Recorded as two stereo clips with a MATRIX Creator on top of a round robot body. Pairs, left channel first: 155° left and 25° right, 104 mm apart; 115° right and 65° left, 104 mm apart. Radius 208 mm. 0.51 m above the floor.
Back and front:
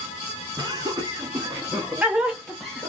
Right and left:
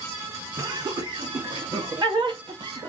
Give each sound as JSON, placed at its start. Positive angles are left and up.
{"t": 0.6, "sound": "laughter", "azimuth_deg": 25, "distance_m": 1.8}